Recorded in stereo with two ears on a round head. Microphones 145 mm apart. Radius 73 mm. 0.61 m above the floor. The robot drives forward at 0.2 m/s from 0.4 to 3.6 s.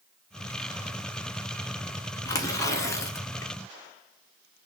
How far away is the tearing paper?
About 1.2 m.